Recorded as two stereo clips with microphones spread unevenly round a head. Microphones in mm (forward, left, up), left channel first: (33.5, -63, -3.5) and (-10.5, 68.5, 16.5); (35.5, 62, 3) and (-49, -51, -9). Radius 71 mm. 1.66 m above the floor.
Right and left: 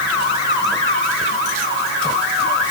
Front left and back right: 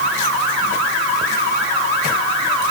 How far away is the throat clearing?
I don't hear throat clearing.